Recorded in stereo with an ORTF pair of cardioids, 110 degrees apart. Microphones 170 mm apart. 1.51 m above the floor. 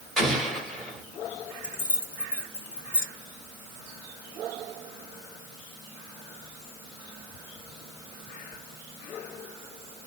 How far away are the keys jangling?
About 2.5 m.